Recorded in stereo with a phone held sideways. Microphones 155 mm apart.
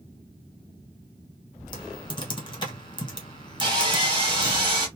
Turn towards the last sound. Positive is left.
turn(degrees=-35)  # may be behind; listen again after turning